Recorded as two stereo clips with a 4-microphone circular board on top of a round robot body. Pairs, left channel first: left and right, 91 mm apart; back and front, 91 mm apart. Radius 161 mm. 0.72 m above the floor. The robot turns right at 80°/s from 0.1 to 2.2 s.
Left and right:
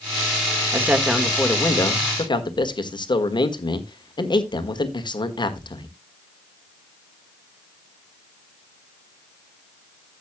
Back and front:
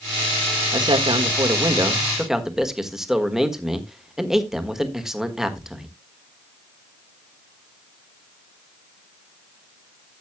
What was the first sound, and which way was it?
A man speaking, 35° right.